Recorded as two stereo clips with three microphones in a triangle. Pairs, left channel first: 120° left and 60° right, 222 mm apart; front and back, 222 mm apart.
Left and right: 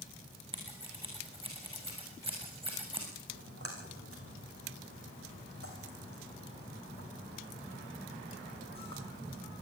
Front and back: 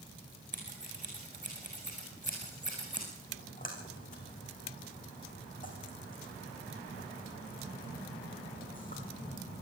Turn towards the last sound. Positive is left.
turn(degrees=-50)